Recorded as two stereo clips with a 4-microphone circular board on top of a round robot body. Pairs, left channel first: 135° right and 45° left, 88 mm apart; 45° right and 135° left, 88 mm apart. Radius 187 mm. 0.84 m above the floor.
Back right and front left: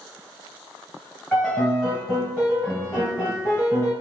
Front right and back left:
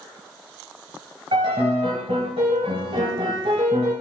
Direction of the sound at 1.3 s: 145° left.